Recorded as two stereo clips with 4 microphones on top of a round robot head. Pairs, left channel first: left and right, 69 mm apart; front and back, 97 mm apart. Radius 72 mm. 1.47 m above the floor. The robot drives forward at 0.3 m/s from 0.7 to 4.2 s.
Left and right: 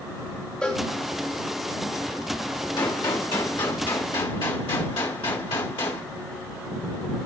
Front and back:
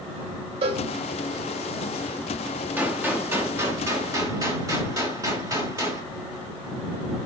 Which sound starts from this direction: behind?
A cowbell, at 0.6 s.